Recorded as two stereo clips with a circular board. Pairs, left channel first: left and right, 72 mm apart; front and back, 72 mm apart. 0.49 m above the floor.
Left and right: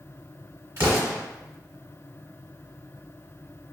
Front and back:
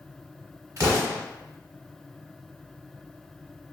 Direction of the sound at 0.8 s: 140° right.